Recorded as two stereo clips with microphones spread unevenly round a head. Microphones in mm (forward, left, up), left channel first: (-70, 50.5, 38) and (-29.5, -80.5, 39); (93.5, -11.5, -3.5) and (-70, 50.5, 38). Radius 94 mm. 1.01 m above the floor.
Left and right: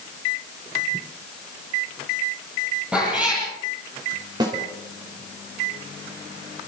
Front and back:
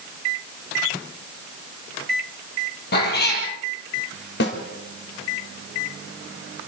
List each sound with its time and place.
2.9 s a cat meowing: 10° left, 5.5 m
4.4 s a snare drum: 5° right, 3.5 m